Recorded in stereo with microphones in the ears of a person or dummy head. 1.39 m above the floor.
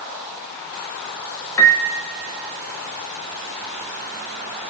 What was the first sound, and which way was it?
A piano, 15° left (ahead or behind).